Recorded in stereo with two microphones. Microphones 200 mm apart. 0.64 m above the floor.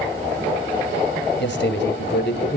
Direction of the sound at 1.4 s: 65° left (ahead or behind).